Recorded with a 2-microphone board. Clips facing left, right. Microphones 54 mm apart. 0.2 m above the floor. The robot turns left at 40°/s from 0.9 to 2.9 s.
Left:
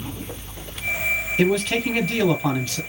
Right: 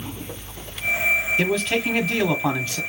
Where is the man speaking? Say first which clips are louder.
Left 2 dB; 5° left (ahead or behind), 1.1 m; by 2.8 s 15° right (ahead or behind), 1.1 m.